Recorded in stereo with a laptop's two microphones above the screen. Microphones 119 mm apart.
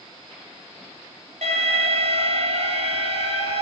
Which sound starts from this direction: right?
An alarm, at 1.4 s.